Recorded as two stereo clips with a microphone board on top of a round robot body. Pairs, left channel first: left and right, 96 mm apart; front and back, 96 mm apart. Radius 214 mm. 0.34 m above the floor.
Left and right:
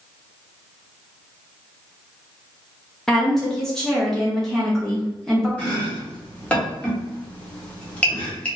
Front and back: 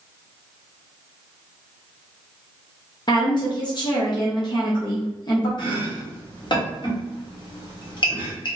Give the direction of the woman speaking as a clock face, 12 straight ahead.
12 o'clock.